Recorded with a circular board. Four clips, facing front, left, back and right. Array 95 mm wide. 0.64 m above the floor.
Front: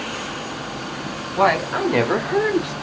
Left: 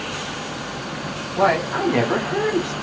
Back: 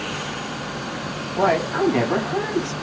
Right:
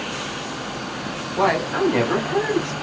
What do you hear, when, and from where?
1.4 s a woman speaking: straight ahead, 1.8 m; by 2.7 s 15° left, 1.3 m